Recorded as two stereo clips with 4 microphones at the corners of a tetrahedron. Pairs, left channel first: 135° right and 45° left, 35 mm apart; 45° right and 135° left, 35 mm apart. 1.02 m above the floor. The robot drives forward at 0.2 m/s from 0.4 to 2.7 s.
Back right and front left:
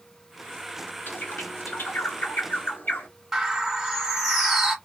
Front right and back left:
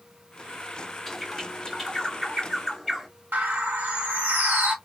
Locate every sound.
1.1 s a bird: 135° right, 0.9 m; by 3.1 s 150° right, 1.1 m
3.3 s a bird: 125° left, 1.1 m